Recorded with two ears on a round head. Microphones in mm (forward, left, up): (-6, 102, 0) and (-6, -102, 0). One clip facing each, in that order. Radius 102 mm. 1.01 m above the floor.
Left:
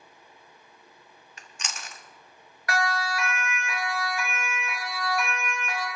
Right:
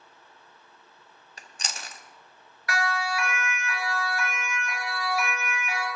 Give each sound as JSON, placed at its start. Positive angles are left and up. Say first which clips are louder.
{"t": 1.4, "sound": "chewing", "louder": "right 1 dB", "side_deg": -30, "distance_m": 1.0}
{"t": 2.7, "sound": "a siren", "louder": "left 1 dB", "side_deg": 40, "distance_m": 4.5}